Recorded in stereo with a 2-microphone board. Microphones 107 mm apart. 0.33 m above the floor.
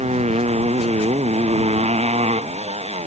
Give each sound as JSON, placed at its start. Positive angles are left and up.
{"t": 0.0, "sound": "a motorcycle", "side_deg": -85}